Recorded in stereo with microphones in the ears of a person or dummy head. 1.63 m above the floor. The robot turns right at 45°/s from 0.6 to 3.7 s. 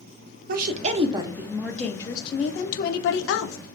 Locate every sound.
0.5 s a woman speaking: 50° right, 0.6 m; by 3.6 s 85° left, 0.6 m